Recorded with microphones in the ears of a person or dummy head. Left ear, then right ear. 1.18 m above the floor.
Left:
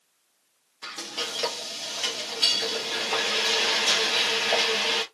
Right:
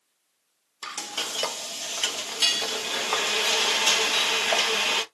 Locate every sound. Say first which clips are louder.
0.8 s frying: right 1 dB; 50° right (ahead or behind), 1.1 m